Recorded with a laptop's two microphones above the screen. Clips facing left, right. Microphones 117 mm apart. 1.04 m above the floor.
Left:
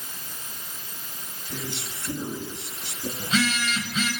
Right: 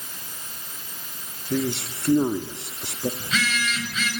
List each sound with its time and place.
1.5 s a man speaking: 55° right (ahead or behind), 1.8 m
3.2 s a phone buzzing: 30° left (ahead or behind), 7 m